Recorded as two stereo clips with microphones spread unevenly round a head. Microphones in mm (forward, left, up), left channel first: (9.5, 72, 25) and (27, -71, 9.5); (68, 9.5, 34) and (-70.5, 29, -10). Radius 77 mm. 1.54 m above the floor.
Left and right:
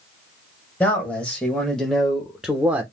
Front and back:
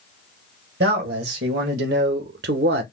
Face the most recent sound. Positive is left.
turn(degrees=-165)